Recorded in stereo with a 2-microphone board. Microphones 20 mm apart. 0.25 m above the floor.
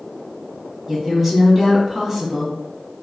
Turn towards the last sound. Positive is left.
turn(degrees=-10)  # may be behind; listen again after turning